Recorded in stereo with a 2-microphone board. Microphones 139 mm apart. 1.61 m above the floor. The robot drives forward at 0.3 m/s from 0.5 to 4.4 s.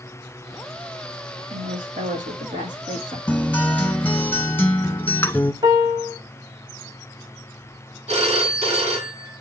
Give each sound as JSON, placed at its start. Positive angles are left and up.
{"t": 1.5, "sound": "a woman speaking", "side_deg": -75, "distance_m": 3.0}
{"t": 3.3, "sound": "a guitar", "side_deg": 10, "distance_m": 0.9}
{"t": 5.6, "sound": "a piano", "side_deg": -25, "distance_m": 1.7}
{"t": 8.1, "sound": "a phone ringing", "side_deg": -55, "distance_m": 2.0}